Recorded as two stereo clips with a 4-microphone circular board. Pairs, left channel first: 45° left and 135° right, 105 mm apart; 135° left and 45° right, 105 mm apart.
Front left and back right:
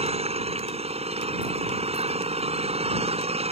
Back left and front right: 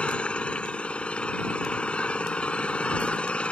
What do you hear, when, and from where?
0.0 s an engine running: 145° right